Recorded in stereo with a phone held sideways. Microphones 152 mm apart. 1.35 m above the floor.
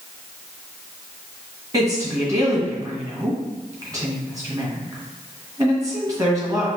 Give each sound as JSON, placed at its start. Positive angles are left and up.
{"t": 1.7, "sound": "a woman speaking", "side_deg": -20, "distance_m": 1.7}